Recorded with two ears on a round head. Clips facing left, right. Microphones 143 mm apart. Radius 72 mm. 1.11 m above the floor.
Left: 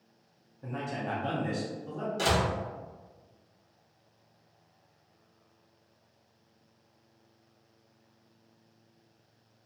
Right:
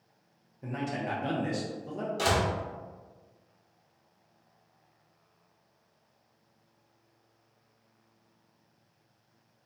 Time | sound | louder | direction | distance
0.6 | a man speaking | right 2 dB | 15° right (ahead or behind) | 0.6 m
2.2 | a door slam | even | centre (ahead or behind) | 0.8 m